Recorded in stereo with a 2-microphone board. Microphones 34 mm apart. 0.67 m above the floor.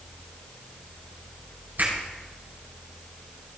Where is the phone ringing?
No phone ringing in this recording.